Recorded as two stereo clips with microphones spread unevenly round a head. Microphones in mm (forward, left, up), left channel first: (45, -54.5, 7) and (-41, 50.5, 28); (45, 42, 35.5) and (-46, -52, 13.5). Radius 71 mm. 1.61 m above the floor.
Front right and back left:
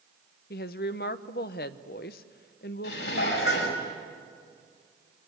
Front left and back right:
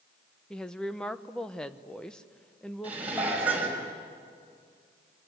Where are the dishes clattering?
55° right, 6 m.